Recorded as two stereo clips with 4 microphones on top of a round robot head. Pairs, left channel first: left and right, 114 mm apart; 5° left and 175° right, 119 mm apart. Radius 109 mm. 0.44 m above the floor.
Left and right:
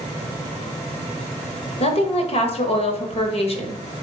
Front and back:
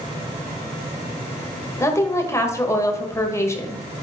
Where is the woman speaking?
70° left, 1.7 m.